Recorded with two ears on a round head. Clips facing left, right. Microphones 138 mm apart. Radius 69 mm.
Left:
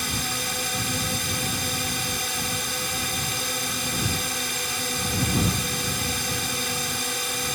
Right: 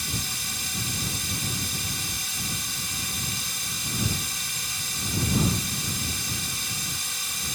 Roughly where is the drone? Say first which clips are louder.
Left 6 dB; left.